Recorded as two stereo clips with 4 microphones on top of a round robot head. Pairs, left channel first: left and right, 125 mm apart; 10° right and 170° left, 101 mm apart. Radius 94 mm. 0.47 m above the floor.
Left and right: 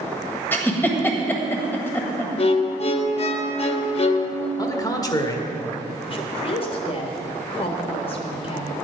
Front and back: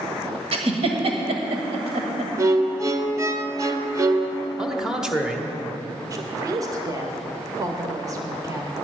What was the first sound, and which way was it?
A giggle, 160° left.